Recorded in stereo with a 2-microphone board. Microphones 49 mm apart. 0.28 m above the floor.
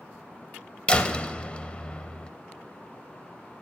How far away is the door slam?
About 0.6 m.